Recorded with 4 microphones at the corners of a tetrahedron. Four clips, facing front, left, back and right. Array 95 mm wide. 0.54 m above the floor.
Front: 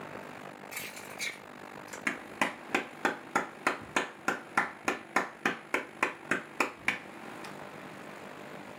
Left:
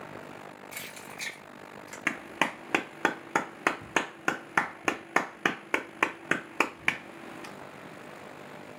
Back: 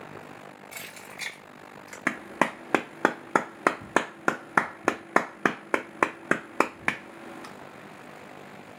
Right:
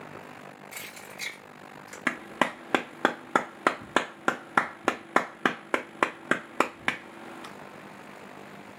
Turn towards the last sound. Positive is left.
turn(degrees=-160)